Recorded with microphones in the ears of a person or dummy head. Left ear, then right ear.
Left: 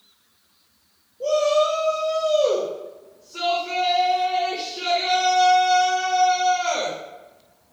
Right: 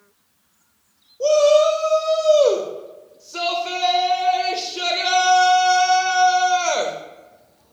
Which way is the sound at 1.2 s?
75° right (ahead or behind).